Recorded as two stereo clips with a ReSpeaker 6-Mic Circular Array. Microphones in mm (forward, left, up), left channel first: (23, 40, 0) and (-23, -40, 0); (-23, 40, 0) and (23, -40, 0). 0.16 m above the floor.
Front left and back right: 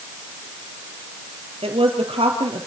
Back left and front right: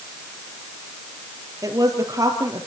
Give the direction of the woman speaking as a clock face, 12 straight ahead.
4 o'clock.